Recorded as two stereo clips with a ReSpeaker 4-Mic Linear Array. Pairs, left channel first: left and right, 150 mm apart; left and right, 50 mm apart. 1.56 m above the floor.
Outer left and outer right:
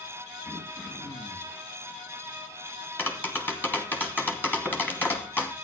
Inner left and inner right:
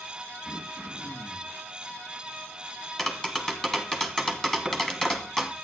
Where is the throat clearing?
20° left (ahead or behind), 1.9 m.